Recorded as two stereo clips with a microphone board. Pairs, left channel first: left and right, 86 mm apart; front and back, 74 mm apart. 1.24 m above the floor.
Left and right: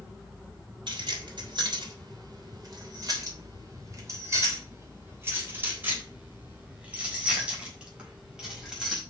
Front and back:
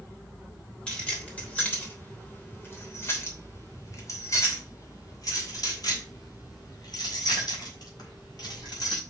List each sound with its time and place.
0.9 s keys jangling: 75° right, 3 m; by 9.0 s 5° right, 4.5 m